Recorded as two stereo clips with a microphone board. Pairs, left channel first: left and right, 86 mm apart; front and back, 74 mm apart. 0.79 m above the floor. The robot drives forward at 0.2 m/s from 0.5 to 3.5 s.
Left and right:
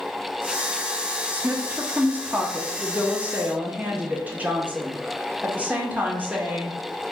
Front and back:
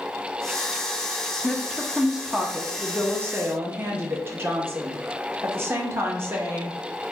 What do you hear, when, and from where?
1.3 s a woman speaking: 80° right, 0.6 m; by 6.8 s 150° right, 0.7 m